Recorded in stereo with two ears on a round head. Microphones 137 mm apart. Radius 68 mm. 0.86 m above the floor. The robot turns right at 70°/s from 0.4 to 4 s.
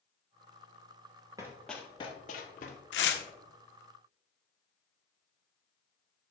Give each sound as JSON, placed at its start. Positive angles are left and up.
{"t": 1.4, "sound": "running footsteps", "side_deg": -25, "distance_m": 1.4}
{"t": 2.9, "sound": "tearing paper", "side_deg": 90, "distance_m": 1.0}